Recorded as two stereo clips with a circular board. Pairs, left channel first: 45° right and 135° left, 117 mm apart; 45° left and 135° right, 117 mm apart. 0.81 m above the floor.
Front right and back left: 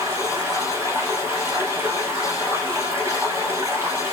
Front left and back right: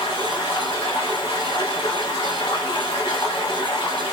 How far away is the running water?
About 0.9 m.